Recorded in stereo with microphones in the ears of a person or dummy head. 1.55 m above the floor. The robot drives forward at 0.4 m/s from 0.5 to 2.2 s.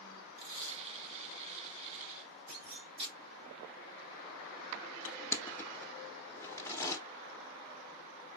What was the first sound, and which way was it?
Tape being pulled, 85° right.